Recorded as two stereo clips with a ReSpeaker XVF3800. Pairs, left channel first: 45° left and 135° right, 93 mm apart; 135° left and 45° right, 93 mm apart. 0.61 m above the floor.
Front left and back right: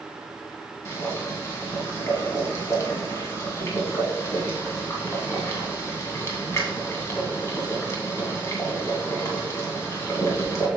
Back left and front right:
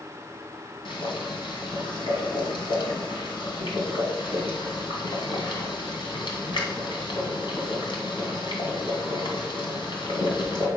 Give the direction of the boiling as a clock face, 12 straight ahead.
8 o'clock.